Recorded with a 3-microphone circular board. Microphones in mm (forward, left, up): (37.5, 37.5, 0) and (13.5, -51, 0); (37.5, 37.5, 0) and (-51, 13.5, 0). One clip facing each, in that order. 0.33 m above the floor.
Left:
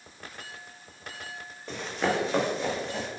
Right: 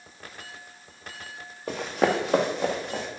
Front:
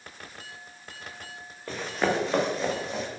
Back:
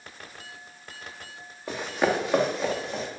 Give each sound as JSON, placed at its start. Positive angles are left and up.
{"t": 1.7, "sound": "running footsteps", "azimuth_deg": -90, "distance_m": 1.4}